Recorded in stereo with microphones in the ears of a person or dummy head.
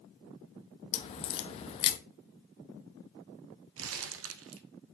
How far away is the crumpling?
About 0.8 m.